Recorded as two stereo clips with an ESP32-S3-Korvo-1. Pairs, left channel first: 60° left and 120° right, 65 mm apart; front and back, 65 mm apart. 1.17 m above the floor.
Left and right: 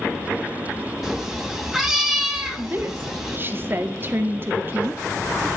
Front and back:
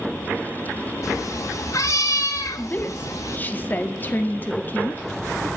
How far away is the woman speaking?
About 1.9 m.